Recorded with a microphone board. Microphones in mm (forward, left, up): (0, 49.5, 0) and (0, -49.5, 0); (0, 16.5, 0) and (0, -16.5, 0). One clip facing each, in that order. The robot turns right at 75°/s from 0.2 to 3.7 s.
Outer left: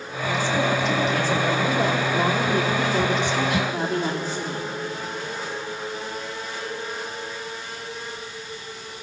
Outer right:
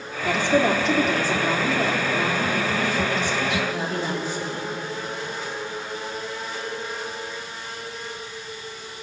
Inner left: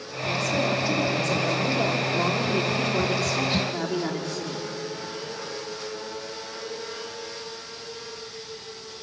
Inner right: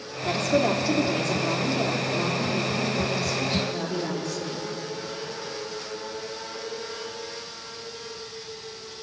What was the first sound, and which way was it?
A woman speaking, 115° right.